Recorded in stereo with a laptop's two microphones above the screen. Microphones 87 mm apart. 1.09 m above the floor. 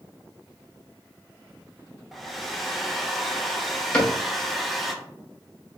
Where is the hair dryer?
Centre (ahead or behind), 0.7 m.